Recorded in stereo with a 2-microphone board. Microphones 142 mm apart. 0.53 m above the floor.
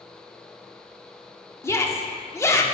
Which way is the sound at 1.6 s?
20° left (ahead or behind).